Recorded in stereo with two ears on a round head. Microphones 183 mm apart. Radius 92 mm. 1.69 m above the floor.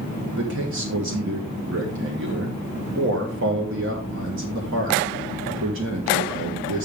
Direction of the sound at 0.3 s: 60° right (ahead or behind).